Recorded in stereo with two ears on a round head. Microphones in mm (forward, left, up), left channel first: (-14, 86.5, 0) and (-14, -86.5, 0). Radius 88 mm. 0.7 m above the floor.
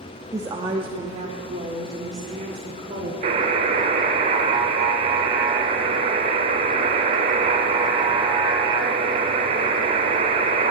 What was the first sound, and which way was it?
A woman speaking, 15° right (ahead or behind).